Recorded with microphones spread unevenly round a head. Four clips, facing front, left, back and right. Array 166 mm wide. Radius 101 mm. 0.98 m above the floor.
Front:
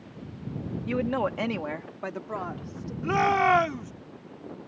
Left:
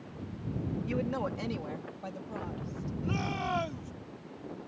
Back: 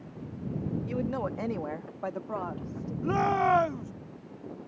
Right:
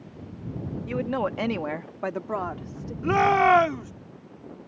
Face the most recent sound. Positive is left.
turn(degrees=-55)